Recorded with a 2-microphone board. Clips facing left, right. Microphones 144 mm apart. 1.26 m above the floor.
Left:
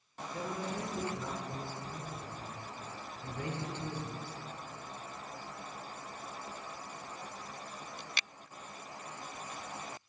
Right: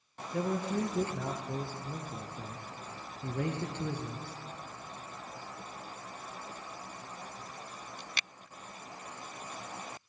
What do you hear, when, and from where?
0.3 s a man speaking: 60° right (ahead or behind), 0.8 m